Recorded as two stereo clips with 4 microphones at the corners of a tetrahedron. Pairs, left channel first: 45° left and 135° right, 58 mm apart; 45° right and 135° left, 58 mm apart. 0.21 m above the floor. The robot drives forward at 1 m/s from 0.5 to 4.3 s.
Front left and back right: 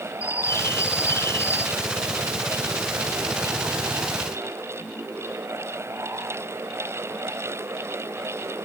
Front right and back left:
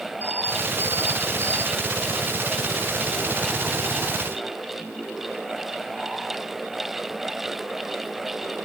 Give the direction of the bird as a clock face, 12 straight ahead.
9 o'clock.